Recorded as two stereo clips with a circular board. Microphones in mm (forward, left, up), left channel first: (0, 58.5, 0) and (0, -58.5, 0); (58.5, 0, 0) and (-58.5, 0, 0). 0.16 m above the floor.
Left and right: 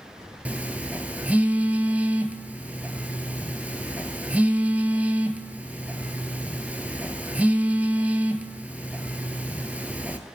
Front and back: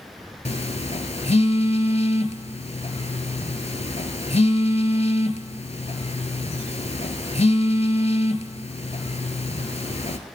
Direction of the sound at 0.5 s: 15° right.